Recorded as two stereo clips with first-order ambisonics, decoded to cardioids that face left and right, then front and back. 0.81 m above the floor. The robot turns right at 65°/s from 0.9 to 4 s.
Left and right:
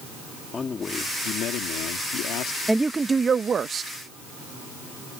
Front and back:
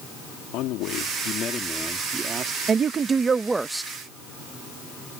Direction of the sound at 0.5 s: 20° left.